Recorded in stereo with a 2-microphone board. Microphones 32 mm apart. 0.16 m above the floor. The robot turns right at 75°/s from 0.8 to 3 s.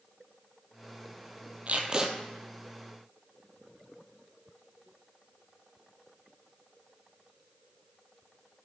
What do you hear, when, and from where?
1.7 s tape being pulled: 50° right, 0.9 m; by 2.1 s 15° right, 0.9 m